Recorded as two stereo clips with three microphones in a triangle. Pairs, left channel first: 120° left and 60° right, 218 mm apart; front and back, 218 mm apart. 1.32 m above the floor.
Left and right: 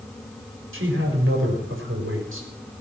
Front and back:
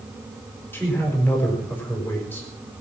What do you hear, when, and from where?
0.7 s a man speaking: 80° right, 4.5 m